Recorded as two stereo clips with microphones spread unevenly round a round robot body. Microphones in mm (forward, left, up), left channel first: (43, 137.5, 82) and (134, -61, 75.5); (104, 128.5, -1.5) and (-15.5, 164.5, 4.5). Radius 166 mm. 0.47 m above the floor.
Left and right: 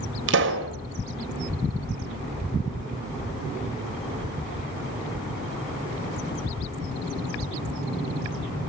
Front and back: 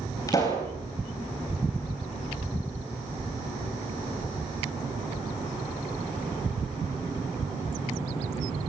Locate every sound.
0.3 s a pop: 90° right, 3 m